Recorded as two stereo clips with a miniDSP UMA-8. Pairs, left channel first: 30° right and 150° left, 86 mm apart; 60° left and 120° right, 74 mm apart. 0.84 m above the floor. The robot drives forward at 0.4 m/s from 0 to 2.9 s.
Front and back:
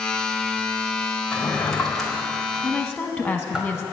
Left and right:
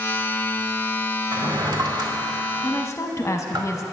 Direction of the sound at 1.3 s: 100° right.